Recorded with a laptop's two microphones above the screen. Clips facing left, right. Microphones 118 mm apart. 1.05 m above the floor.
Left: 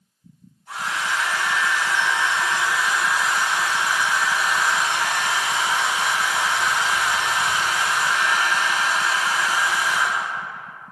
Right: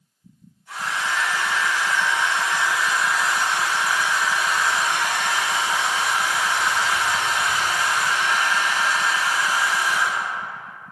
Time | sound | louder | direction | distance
0.7 | a hair dryer | even | 45° left (ahead or behind) | 1.2 m